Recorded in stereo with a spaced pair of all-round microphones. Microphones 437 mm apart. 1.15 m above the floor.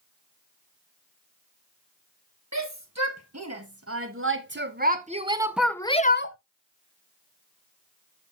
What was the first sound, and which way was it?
A shout, 40° right (ahead or behind).